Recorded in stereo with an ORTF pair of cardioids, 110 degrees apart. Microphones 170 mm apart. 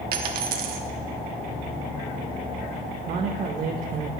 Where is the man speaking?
50° right, 0.8 m.